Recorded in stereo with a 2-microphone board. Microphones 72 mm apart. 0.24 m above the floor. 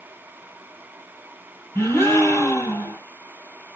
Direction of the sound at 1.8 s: 45° left (ahead or behind).